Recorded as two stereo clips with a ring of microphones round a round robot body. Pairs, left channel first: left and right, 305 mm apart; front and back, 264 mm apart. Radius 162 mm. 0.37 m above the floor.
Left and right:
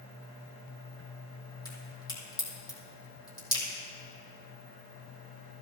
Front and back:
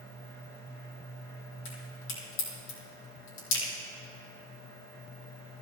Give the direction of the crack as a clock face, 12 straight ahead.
12 o'clock.